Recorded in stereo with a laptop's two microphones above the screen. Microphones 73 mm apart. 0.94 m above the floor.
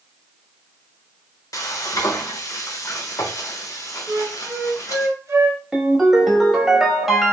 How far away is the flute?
About 0.9 m.